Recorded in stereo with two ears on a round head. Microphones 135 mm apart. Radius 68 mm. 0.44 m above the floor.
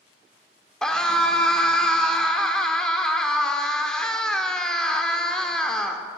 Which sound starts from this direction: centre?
A scream, at 0.8 s.